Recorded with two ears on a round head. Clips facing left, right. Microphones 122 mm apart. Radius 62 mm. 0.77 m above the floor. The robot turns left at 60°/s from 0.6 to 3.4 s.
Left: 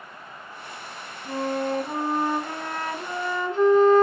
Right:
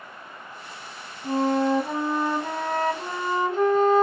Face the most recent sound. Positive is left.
turn(degrees=-170)